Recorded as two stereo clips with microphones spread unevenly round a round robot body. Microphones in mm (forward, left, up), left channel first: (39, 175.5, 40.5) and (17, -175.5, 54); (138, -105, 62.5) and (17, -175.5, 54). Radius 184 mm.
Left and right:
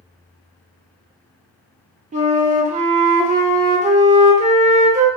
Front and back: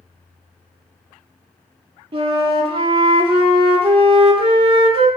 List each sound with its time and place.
2.1 s a flute: 155° right, 0.5 m